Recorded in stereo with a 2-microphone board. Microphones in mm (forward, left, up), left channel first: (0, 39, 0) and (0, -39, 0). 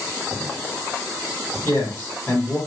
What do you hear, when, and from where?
1.6 s a man speaking: 30° left (ahead or behind), 1.8 m